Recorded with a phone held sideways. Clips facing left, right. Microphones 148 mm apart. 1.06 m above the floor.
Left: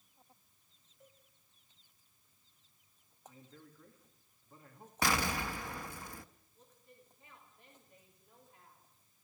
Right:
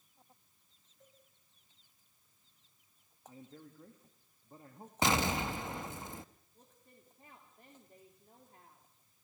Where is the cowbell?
5° left (ahead or behind), 6 m.